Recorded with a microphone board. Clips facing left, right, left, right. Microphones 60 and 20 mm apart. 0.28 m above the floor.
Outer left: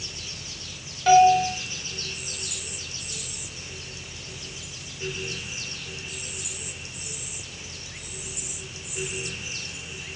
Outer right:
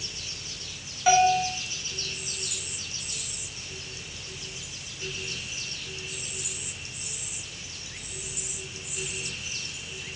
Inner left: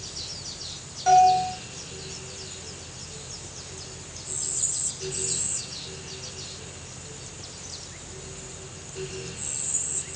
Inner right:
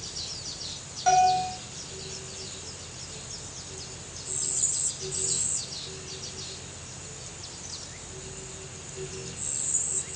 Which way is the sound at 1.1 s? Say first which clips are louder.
Outer left 5 dB, inner left 4 dB; 5° right (ahead or behind).